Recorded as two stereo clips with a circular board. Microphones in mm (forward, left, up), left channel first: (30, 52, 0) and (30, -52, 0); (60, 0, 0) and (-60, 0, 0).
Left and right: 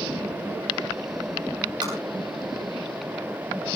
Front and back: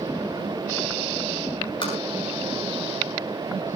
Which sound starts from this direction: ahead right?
Tapping, at 1.8 s.